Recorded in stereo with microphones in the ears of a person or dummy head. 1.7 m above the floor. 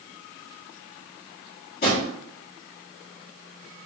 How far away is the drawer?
About 1.9 m.